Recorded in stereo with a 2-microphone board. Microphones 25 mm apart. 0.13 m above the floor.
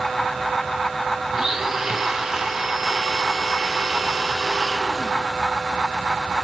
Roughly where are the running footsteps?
I don't hear running footsteps.